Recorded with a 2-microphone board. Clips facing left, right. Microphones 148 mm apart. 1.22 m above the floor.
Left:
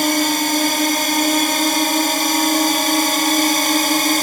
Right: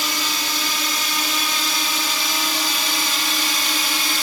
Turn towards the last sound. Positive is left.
turn(degrees=50)  # may be behind; listen again after turning